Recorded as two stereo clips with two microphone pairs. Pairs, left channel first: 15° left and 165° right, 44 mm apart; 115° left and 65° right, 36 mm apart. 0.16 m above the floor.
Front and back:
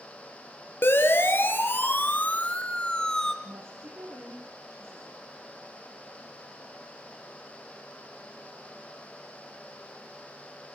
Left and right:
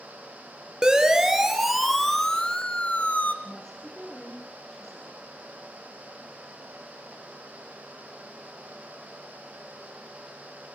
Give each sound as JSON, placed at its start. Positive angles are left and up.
{"t": 0.8, "sound": "a siren", "azimuth_deg": 5, "distance_m": 3.0}
{"t": 3.4, "sound": "a woman speaking", "azimuth_deg": -160, "distance_m": 7.5}